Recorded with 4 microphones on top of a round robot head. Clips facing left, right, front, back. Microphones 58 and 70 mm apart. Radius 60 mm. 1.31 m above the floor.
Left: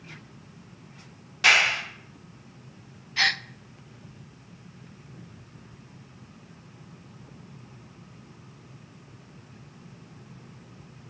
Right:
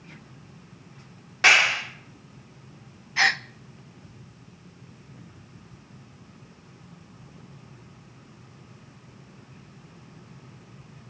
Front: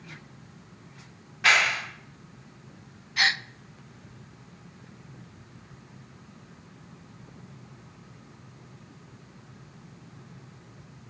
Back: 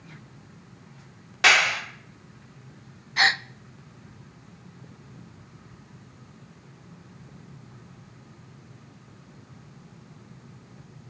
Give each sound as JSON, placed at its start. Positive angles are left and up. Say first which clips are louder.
{"t": 1.4, "sound": "a clap", "louder": "right 2 dB, back 2 dB", "azimuth_deg": -155, "distance_m": 2.5}
{"t": 3.2, "sound": "a gasp", "louder": "right 3 dB, back 3 dB", "azimuth_deg": -145, "distance_m": 0.5}